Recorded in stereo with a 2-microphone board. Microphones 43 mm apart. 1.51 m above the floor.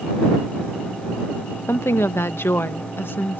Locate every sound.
1.7 s a woman speaking: 75° left (ahead or behind); by 3.4 s 55° left (ahead or behind)